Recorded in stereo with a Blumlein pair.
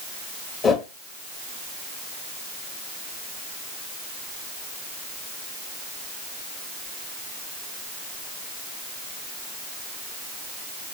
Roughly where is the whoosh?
Ahead.